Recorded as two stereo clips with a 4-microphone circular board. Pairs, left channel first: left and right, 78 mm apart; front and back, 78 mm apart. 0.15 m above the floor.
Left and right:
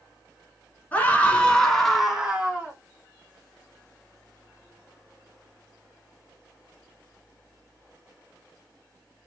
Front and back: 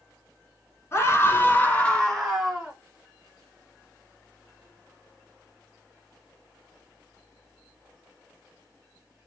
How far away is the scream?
About 1.4 m.